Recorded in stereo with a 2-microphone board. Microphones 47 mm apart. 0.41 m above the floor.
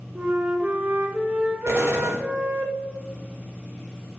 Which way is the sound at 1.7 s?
70° right (ahead or behind).